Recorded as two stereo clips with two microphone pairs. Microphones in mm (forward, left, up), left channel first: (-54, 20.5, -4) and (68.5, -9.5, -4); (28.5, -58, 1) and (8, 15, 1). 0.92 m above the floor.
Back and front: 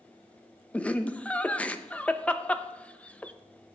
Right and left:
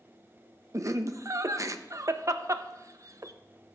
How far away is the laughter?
About 0.5 m.